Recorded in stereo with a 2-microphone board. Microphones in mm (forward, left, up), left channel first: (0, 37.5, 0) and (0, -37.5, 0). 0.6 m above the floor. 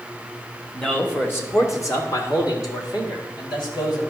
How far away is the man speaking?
About 1.4 m.